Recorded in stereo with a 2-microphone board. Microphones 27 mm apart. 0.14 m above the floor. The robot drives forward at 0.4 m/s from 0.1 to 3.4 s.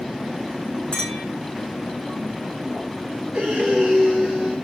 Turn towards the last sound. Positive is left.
turn(degrees=-25)  # may be behind; listen again after turning